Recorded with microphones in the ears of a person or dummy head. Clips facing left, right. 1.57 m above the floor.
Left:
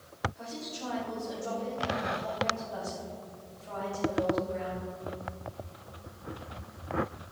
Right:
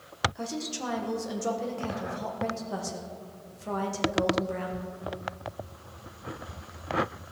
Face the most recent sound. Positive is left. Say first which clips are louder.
# right 6 dB
turn(degrees=-65)  # may be behind; listen again after turning